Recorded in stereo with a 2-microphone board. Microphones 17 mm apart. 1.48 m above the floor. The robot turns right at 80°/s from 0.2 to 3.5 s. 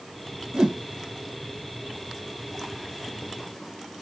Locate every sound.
0.5 s a whoosh: 85° right, 0.6 m; by 0.8 s 65° right (ahead or behind), 0.6 m